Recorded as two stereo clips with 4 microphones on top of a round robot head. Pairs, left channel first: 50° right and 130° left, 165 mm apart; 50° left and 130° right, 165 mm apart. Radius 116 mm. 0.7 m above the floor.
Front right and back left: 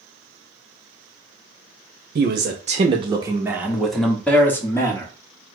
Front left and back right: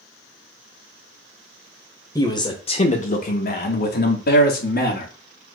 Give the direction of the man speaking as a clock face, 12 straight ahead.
8 o'clock.